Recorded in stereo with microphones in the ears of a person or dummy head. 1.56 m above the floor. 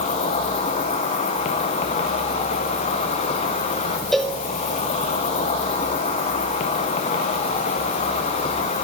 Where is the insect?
30° left (ahead or behind), 0.7 m.